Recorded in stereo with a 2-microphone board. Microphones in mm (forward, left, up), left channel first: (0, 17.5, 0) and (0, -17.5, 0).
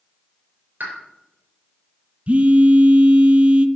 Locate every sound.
0.8 s a pop: 60° right (ahead or behind), 4 m
2.3 s a phone buzzing: 45° right (ahead or behind), 0.7 m